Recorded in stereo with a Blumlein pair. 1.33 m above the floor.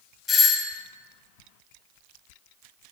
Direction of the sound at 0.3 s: 20° left.